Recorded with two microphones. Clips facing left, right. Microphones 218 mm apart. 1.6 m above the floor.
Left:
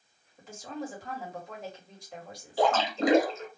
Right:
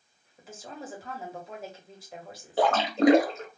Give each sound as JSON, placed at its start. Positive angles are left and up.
{"t": 0.4, "sound": "a woman speaking", "side_deg": -5, "distance_m": 1.4}
{"t": 2.6, "sound": "a splash", "side_deg": -65, "distance_m": 0.7}